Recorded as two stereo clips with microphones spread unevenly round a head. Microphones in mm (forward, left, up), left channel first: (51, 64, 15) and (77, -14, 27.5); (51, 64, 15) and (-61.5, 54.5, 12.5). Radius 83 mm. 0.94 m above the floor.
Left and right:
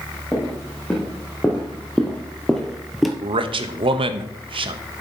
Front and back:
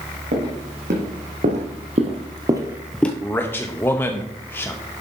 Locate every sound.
0.3 s footsteps: 165° right, 3 m; by 3.1 s 15° right, 0.9 m
3.2 s a man speaking: 70° right, 0.7 m